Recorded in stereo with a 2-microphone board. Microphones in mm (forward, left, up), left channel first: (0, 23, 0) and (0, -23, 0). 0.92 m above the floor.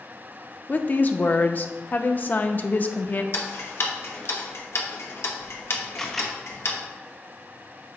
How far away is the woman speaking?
About 0.6 m.